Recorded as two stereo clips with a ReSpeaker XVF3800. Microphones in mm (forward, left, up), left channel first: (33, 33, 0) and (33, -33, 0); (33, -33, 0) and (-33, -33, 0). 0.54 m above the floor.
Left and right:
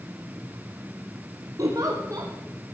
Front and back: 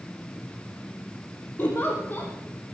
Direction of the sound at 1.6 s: 60° right.